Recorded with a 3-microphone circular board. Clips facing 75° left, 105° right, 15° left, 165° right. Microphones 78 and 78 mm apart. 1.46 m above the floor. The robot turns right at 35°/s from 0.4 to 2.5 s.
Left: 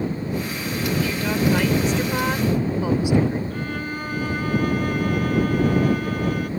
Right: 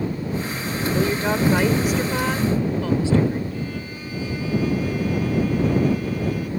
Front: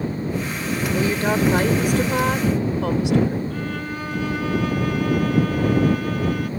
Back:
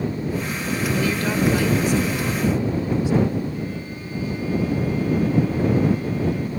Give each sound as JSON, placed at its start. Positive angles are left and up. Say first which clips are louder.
{"t": 0.9, "sound": "a woman speaking", "louder": "right 4 dB, front 3 dB", "azimuth_deg": -55}
{"t": 3.5, "sound": "a violin", "louder": "left 2 dB, front 2 dB", "azimuth_deg": 40}